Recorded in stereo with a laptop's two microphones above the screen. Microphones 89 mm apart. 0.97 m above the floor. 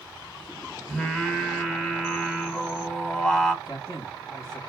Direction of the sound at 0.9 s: 5° left (ahead or behind).